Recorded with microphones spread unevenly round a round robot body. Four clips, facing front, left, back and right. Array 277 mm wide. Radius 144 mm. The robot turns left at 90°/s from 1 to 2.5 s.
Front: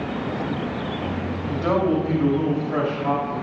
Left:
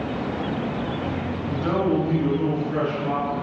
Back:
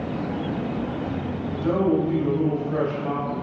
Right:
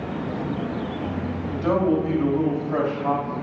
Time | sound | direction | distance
1.5 | a man speaking | 5° right | 2.0 m